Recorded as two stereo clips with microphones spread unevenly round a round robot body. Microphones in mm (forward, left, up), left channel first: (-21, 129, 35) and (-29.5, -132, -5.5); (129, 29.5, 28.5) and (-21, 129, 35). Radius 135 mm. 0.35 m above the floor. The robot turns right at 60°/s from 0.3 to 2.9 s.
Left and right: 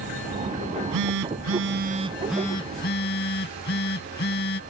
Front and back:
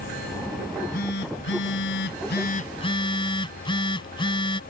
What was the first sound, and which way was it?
A phone buzzing, 105° right.